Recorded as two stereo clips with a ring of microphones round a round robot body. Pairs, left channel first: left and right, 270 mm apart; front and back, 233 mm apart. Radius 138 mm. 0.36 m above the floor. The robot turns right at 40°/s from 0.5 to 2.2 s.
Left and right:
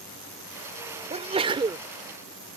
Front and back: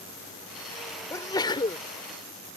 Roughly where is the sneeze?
Ahead right.